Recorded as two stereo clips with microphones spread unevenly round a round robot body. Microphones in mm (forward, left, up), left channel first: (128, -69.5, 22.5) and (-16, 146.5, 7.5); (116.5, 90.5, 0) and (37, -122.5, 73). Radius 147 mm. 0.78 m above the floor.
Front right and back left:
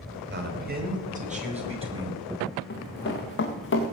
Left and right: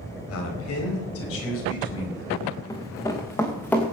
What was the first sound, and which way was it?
A man speaking, 75° left.